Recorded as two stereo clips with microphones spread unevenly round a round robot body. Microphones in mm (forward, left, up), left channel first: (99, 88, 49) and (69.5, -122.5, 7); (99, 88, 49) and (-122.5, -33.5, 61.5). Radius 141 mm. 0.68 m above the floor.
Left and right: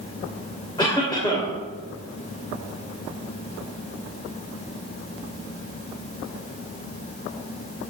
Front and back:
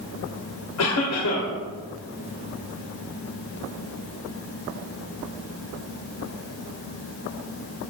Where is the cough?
10° left, 3 m.